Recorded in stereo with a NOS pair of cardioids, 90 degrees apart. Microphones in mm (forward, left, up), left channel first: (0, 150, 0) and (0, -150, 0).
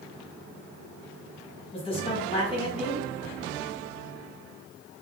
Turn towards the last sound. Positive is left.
turn(degrees=15)